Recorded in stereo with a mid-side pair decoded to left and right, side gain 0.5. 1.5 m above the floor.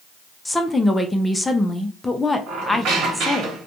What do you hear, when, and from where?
0.5 s a woman speaking: 15° left, 0.5 m
2.5 s a squeak: 70° right, 1.2 m